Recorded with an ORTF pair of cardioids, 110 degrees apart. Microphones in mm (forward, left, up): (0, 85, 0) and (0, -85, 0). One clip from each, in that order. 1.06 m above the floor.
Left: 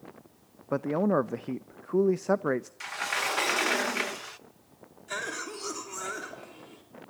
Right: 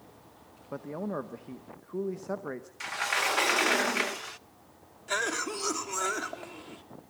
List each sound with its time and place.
0.7 s a man speaking: 45° left, 0.6 m
2.8 s a sliding door: 10° right, 0.6 m
5.1 s a cough: 35° right, 3 m